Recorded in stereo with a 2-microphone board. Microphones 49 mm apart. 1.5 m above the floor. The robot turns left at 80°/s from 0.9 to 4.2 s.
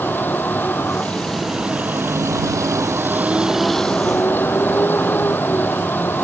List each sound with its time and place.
0.0 s a vehicle: 40° left; by 6.2 s 135° left